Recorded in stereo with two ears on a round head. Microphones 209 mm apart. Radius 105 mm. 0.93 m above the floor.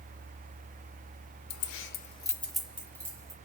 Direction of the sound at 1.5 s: 75° left (ahead or behind).